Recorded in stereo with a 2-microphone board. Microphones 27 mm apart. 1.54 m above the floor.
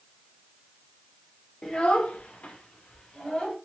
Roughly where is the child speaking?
Left.